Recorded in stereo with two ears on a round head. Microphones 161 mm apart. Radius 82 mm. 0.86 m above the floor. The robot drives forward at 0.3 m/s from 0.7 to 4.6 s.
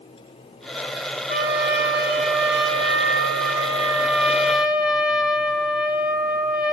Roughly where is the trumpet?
Centre.